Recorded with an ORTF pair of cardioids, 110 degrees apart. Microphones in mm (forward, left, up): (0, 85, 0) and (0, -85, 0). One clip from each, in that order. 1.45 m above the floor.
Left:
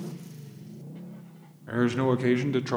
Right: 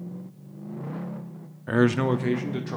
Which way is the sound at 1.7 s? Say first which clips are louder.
Right 3 dB; 40° right.